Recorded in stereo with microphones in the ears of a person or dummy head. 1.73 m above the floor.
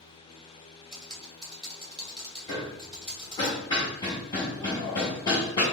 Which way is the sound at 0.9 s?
5° right (ahead or behind).